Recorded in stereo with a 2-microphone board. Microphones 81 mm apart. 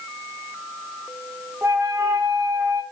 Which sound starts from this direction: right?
A flute, at 1.6 s.